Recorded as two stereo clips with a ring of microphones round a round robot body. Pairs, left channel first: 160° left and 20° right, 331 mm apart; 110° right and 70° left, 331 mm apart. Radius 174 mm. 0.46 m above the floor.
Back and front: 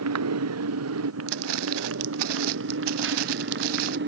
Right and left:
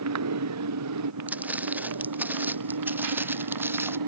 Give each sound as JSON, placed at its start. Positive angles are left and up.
{"t": 0.0, "sound": "a motorcycle", "azimuth_deg": 25}
{"t": 1.3, "sound": "footsteps", "azimuth_deg": -20}